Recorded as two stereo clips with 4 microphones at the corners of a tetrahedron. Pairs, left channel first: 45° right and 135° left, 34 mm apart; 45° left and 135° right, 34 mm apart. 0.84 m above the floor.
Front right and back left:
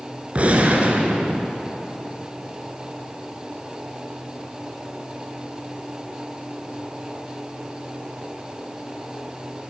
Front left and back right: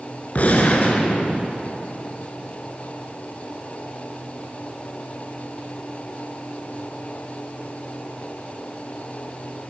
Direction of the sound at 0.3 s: 90° left.